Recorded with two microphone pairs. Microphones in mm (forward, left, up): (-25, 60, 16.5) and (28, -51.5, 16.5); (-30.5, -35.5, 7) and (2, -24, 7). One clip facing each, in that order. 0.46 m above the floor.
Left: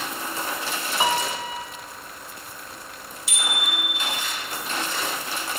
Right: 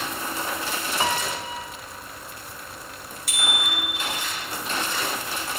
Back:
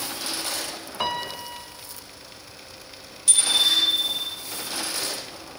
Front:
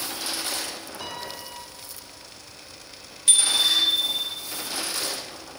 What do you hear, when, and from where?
1.0 s a piano: 170° right, 0.9 m
3.3 s a bicycle bell: 35° right, 5 m